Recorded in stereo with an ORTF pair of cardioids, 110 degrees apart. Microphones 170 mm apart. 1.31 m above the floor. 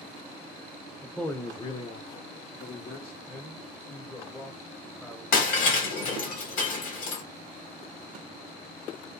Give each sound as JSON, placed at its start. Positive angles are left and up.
{"t": 1.0, "sound": "a man speaking", "azimuth_deg": -5, "distance_m": 0.5}
{"t": 3.3, "sound": "a man speaking", "azimuth_deg": 10, "distance_m": 0.7}
{"t": 5.3, "sound": "breaking glass", "azimuth_deg": 55, "distance_m": 1.4}